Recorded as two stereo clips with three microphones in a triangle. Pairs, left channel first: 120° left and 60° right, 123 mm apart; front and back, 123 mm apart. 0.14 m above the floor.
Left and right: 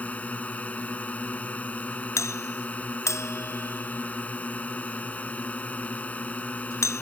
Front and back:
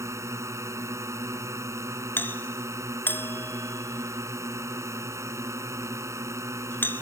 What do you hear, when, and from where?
0.0 s a drone: straight behind
2.2 s a doorbell: 65° left